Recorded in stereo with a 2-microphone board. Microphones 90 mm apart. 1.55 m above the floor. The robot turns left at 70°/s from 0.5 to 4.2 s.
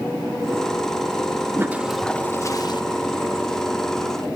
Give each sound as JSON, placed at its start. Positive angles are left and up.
{"t": 1.6, "sound": "a toilet flushing", "azimuth_deg": -150, "distance_m": 1.2}